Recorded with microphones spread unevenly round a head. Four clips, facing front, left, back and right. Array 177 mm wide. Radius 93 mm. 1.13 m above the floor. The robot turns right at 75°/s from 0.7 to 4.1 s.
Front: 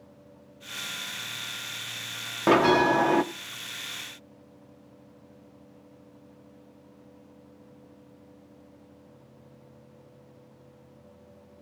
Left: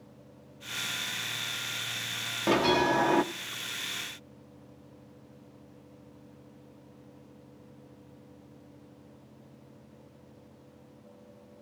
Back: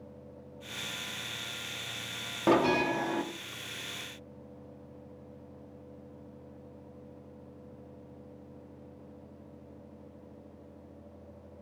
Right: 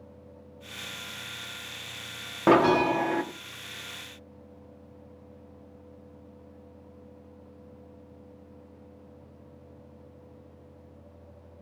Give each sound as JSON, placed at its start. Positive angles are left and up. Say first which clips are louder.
{"t": 2.5, "sound": "a bell", "louder": "right 5 dB, front 6 dB", "azimuth_deg": -40, "distance_m": 1.2}